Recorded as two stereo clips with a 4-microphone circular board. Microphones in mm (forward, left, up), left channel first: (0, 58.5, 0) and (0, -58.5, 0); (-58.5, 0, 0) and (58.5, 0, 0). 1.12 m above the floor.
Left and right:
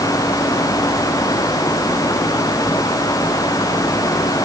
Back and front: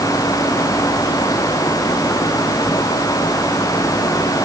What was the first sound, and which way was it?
Only background noise.